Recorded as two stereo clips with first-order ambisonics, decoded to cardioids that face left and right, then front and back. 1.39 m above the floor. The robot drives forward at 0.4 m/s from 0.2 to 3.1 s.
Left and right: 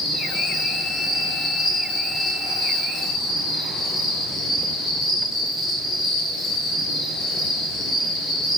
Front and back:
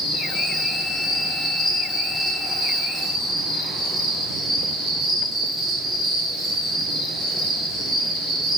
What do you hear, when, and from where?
0.0 s an insect: 35° left, 1.2 m; by 8.6 s 135° left, 1.1 m